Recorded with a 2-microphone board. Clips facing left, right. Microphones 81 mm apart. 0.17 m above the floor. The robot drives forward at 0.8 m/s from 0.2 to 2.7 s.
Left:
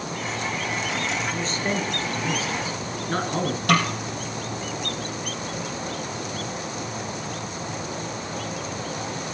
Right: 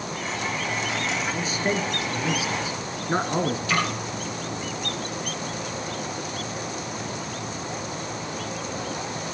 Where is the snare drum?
65° left (ahead or behind), 3.5 m.